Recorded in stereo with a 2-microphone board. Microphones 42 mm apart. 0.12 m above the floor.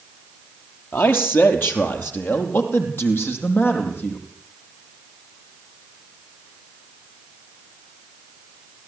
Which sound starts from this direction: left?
A man speaking, at 0.9 s.